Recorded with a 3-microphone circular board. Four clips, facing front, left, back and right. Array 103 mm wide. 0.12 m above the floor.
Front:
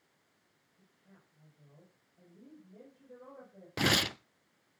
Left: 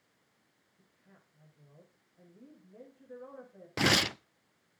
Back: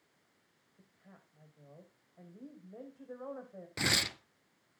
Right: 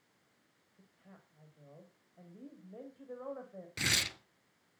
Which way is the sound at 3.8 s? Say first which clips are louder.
Left 10 dB, front 5 dB; 65° left.